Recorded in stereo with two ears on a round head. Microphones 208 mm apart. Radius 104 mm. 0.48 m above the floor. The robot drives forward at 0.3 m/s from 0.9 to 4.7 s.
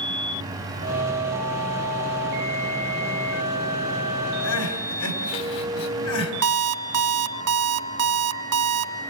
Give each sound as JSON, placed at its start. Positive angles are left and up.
{"t": 4.4, "sound": "crying", "side_deg": 70, "distance_m": 3.5}
{"t": 6.4, "sound": "an alarm clock", "side_deg": -70, "distance_m": 2.0}